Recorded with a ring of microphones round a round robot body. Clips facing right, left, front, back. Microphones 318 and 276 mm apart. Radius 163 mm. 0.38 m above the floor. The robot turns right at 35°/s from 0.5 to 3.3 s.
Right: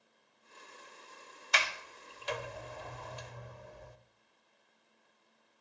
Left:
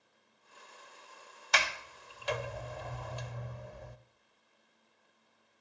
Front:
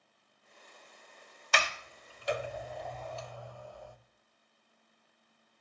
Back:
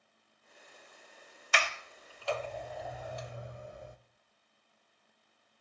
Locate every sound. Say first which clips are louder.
1.5 s a sliding door: left 2 dB, front 1 dB; 45° left, 0.7 m; by 4.0 s 110° left, 0.7 m